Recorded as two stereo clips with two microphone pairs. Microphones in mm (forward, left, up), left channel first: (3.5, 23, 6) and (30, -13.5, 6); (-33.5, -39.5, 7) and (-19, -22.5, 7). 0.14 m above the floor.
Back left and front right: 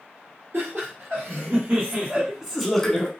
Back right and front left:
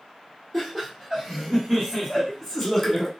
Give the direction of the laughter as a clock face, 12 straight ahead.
1 o'clock.